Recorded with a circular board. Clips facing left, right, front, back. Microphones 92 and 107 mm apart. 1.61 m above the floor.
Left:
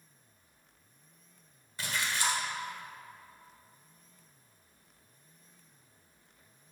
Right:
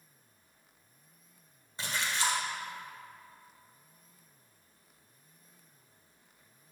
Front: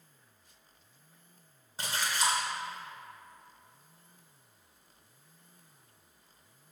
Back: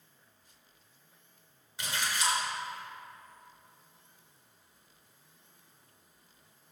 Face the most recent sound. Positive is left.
turn(degrees=-35)